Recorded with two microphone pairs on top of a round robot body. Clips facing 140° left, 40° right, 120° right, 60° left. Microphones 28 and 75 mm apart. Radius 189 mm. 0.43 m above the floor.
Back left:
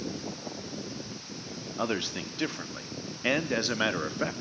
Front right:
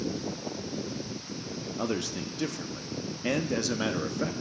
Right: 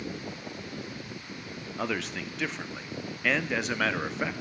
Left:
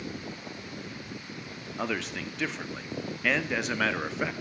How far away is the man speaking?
About 1.1 m.